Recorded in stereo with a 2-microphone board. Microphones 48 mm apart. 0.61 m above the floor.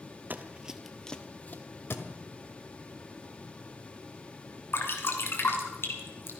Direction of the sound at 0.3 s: 40° right (ahead or behind).